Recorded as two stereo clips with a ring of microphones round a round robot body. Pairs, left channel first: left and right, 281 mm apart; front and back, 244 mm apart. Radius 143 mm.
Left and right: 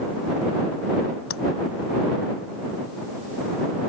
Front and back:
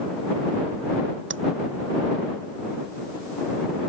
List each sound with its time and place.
1.3 s tapping: 140° left